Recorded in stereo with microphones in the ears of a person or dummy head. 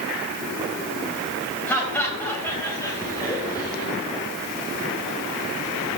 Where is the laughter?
10° left (ahead or behind), 5.5 m; by 3.9 s 20° left (ahead or behind), 4.5 m.